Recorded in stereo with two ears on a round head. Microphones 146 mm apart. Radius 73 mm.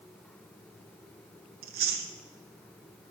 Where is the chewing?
60° right (ahead or behind), 1.0 m.